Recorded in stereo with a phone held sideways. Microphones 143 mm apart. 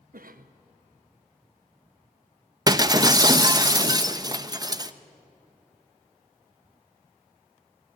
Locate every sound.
0.1 s a cough: 80° right, 0.8 m
2.7 s breaking glass: 25° right (ahead or behind), 0.7 m